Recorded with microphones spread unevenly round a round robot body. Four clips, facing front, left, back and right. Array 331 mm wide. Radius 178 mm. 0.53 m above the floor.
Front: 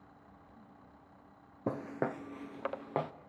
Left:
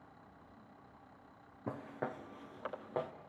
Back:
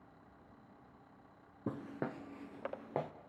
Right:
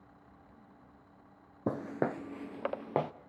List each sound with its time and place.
1.7 s footsteps: 65° right, 0.6 m